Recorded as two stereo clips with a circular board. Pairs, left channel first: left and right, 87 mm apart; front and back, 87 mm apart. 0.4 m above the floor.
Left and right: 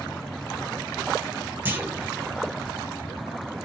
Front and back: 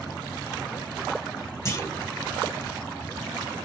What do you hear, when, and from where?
1.6 s a clunk: 35° right, 1.3 m